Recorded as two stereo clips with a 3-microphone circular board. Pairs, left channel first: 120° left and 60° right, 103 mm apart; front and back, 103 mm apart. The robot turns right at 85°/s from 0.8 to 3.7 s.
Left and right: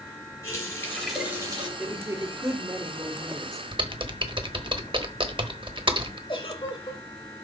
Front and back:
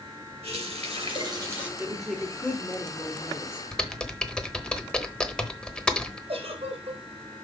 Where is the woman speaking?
115° right, 1.3 m; by 3.6 s 40° left, 1.3 m.